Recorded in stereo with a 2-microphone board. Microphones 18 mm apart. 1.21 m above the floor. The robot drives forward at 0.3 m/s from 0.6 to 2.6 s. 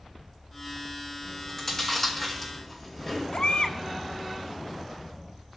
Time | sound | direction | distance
1.2 | chewing | 20° left (ahead or behind) | 4 m
3.3 | a baby crying | 70° left (ahead or behind) | 1.5 m